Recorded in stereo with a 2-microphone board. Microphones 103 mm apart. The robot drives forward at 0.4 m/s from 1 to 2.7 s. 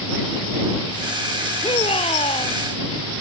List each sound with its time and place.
1.6 s a shout: 70° left (ahead or behind)